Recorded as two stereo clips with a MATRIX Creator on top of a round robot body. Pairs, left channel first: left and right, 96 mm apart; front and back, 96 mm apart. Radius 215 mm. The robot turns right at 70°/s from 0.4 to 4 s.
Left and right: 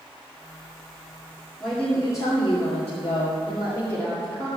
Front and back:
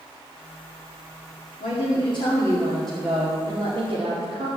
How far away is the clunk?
I don't hear a clunk.